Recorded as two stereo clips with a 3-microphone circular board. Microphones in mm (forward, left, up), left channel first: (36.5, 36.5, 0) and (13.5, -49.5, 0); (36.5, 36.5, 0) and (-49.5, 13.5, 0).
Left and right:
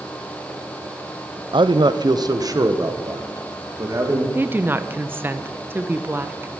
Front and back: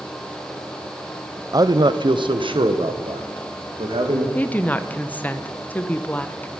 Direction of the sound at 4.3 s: 50° right.